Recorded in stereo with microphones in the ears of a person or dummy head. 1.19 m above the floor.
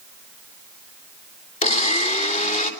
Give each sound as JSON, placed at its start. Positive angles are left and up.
{"t": 1.6, "sound": "a blender", "side_deg": 35, "distance_m": 3.0}